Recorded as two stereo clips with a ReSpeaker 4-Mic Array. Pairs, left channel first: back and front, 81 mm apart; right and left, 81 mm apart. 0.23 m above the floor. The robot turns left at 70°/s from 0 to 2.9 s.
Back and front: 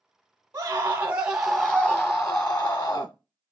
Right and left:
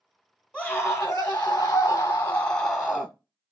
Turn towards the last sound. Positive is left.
turn(degrees=-170)